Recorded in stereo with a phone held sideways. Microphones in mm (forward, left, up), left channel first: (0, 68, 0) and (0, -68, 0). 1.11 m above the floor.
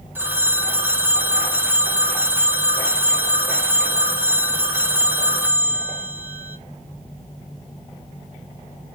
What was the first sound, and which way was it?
A phone ringing, 15° right (ahead or behind).